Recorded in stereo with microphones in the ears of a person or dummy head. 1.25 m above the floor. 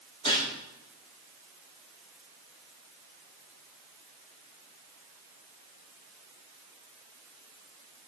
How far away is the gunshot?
About 3 m.